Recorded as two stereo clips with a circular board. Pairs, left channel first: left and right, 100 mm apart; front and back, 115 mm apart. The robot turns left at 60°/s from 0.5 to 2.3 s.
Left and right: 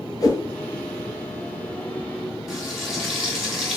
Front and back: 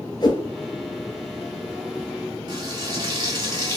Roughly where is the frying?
Behind.